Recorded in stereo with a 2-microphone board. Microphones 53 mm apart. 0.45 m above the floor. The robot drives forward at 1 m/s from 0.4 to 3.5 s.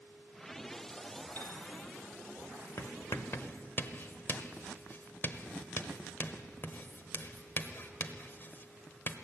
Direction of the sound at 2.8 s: 55° left (ahead or behind).